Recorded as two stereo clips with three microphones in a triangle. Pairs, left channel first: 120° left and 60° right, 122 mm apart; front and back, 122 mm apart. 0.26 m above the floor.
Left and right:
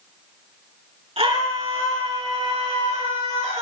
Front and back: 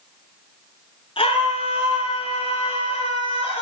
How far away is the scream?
About 3.5 m.